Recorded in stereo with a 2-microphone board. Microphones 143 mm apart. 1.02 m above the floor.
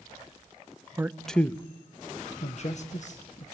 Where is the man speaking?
15° right (ahead or behind), 0.7 m; by 3.4 s 60° left (ahead or behind), 1.9 m.